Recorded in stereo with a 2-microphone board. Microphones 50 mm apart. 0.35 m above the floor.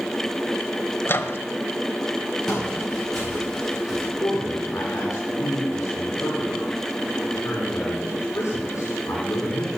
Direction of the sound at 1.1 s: 50° left (ahead or behind).